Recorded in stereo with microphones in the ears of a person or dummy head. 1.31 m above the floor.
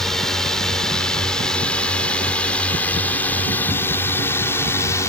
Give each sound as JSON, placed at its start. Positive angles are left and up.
{"t": 0.0, "sound": "a drone", "side_deg": 5}